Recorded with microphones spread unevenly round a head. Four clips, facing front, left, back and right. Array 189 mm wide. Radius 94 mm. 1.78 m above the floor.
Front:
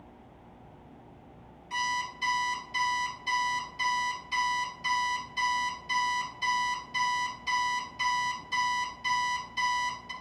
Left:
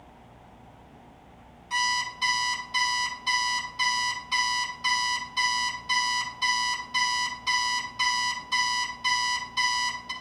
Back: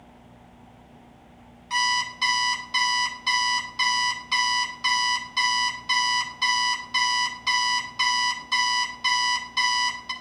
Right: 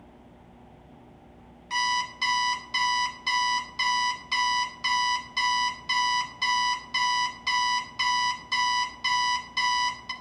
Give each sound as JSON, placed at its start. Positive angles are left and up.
{"t": 1.7, "sound": "an alarm clock", "azimuth_deg": -140, "distance_m": 1.2}